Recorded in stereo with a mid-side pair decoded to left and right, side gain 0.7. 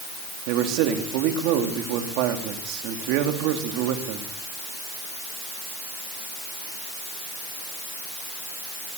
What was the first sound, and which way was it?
A man speaking, 65° right.